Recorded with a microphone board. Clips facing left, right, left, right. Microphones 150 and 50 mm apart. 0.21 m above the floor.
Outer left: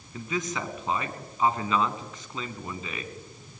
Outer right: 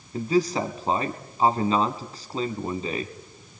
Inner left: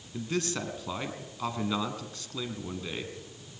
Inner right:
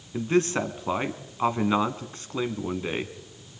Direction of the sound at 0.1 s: 35° right (ahead or behind).